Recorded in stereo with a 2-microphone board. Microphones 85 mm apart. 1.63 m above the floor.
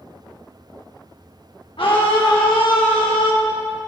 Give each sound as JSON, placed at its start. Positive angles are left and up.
{"t": 1.8, "sound": "a scream", "side_deg": 80, "distance_m": 1.5}